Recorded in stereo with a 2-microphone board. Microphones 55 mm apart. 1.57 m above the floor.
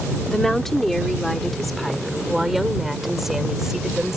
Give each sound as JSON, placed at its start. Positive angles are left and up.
{"t": 0.3, "sound": "a woman speaking", "side_deg": 10}